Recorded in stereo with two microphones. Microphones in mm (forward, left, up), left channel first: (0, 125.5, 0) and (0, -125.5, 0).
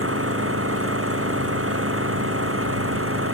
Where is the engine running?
60° right (ahead or behind).